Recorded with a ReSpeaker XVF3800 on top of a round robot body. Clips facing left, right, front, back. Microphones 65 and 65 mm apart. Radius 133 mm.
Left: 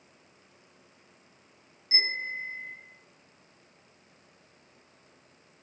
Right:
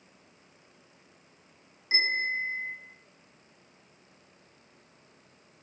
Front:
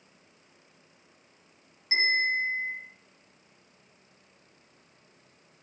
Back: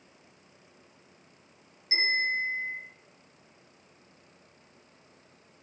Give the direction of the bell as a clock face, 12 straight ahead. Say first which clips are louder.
Right 4 dB, front 2 dB; 2 o'clock.